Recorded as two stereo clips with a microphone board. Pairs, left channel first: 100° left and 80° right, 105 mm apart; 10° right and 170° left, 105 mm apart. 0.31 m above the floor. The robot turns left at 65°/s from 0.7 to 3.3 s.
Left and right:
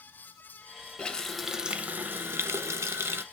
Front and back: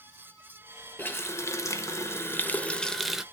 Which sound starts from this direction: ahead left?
A running tap, at 1.0 s.